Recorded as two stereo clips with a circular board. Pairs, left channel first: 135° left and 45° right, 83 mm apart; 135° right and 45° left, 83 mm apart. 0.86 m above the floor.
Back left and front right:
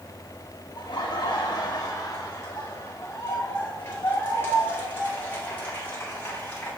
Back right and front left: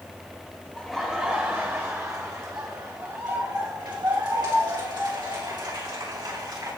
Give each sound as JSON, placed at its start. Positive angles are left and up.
{"t": 0.8, "sound": "laughter", "azimuth_deg": 140, "distance_m": 1.4}